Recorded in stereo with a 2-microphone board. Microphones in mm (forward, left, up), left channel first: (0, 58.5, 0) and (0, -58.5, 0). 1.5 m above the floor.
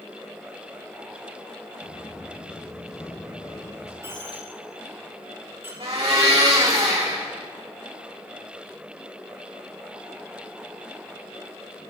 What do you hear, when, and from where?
1.8 s footsteps: 40° left (ahead or behind), 3 m; by 3.9 s 30° left (ahead or behind), 4.5 m
4.0 s a dropped coin: 25° right (ahead or behind), 5.5 m
5.8 s a blender: 60° right (ahead or behind), 4.5 m